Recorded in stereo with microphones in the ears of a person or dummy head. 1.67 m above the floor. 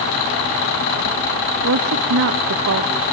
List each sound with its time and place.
1.6 s a woman speaking: 65° right (ahead or behind), 0.7 m